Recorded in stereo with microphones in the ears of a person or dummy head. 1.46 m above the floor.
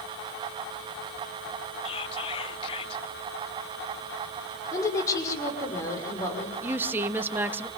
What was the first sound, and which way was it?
Whispering, 30° left (ahead or behind).